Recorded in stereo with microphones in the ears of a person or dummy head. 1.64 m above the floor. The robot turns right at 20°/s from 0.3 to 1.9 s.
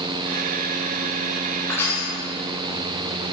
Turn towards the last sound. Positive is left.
turn(degrees=20)  # may be behind; listen again after turning